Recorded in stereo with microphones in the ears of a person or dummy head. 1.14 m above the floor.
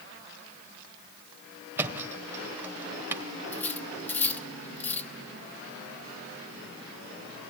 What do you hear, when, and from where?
1.8 s a thud: 10° right (ahead or behind), 2 m
3.5 s cutlery clinking: 5° left (ahead or behind), 1.2 m